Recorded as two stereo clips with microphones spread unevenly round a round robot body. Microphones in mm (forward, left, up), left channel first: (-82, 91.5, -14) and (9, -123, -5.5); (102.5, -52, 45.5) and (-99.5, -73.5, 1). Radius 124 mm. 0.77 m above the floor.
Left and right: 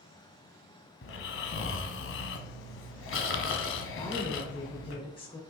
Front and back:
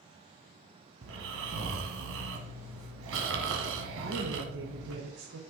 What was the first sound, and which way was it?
Snoring, 145° left.